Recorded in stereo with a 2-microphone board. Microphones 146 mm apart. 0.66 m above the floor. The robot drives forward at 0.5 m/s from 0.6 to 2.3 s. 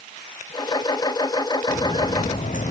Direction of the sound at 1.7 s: 40° left (ahead or behind).